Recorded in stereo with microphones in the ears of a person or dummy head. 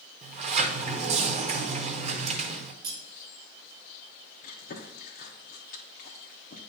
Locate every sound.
0.2 s a sliding door: 40° right (ahead or behind), 0.9 m
2.8 s cutlery clinking: 55° right (ahead or behind), 3 m
4.4 s chewing: 45° left (ahead or behind), 1.1 m